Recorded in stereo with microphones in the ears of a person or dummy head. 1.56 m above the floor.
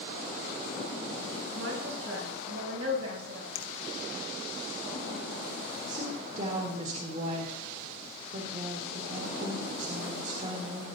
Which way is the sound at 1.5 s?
90° right.